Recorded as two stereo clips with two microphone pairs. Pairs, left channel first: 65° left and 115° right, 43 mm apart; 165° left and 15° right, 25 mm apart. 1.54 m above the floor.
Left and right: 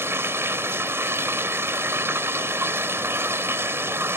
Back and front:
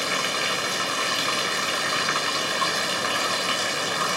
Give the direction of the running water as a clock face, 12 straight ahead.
3 o'clock.